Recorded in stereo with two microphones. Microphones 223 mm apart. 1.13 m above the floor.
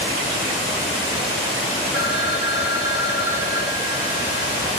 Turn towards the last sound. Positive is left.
turn(degrees=45)  # may be behind; listen again after turning